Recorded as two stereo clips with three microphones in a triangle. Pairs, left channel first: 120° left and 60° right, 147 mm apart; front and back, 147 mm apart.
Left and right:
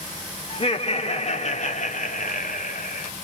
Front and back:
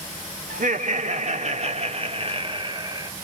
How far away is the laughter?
About 2 m.